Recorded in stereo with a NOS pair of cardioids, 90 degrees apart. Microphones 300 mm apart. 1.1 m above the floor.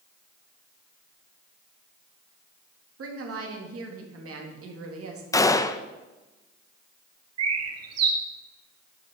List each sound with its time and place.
3.0 s a woman speaking: 50° right, 1.9 m
5.3 s a gunshot: 10° left, 0.5 m
7.4 s a bird: 55° right, 1.4 m